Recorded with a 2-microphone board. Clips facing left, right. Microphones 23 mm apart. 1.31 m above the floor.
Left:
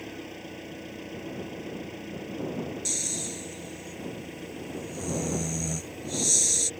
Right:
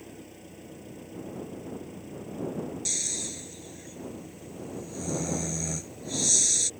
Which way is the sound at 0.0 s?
40° left (ahead or behind).